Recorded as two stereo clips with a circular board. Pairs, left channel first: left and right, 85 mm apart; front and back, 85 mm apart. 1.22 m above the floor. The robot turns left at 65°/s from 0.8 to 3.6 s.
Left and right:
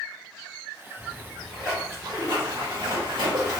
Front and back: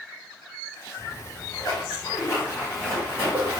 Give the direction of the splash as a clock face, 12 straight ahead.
11 o'clock.